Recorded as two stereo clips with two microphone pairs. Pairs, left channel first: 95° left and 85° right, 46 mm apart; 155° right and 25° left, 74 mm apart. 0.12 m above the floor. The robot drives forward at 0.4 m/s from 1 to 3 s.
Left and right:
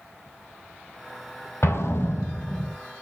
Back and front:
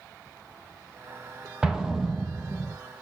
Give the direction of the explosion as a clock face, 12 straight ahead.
9 o'clock.